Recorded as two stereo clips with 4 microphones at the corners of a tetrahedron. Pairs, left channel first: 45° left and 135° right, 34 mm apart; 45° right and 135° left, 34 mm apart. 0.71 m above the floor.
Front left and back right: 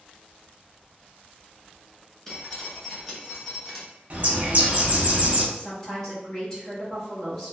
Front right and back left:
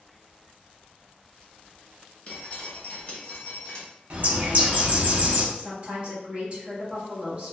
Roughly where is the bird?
Behind.